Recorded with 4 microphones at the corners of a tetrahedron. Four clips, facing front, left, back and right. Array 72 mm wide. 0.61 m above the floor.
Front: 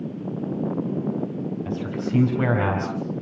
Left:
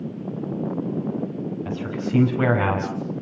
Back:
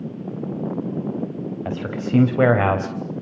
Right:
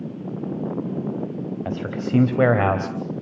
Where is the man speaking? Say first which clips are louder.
Right 1 dB, back 2 dB; 140° right, 4 m.